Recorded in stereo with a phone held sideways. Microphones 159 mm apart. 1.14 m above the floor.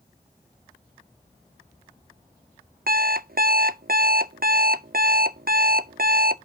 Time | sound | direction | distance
2.9 | an alarm clock | 70° right (ahead or behind) | 0.5 m